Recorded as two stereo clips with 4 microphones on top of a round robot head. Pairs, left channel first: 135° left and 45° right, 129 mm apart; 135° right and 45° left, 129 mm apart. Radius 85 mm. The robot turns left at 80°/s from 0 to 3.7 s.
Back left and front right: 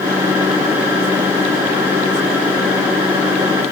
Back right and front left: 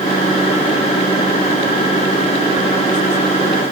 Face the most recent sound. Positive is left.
No sound to turn to.